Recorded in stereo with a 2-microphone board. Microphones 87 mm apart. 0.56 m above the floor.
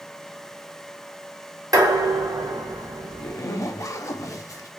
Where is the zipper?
40° left (ahead or behind), 0.5 m.